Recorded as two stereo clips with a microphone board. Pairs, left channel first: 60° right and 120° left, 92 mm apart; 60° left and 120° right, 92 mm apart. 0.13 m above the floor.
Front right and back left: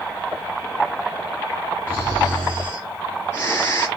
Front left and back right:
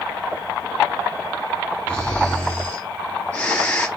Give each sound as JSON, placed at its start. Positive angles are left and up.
{"t": 1.9, "sound": "snoring", "azimuth_deg": -10, "distance_m": 2.0}